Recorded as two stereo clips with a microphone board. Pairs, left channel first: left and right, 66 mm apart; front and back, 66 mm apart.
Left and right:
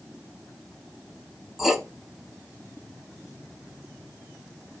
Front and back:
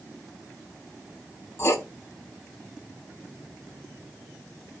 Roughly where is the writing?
Ahead.